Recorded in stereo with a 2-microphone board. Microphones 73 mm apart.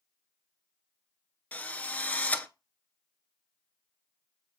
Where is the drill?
20° left (ahead or behind), 0.6 m.